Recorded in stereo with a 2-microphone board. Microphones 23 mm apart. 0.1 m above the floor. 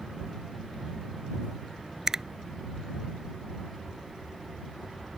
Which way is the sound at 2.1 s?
25° right (ahead or behind).